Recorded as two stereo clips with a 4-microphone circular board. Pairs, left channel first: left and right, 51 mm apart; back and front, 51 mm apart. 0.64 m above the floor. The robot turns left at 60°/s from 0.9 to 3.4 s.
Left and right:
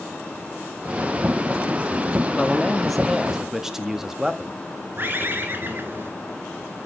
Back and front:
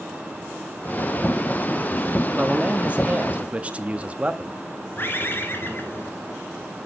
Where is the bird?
135° right, 1.6 m.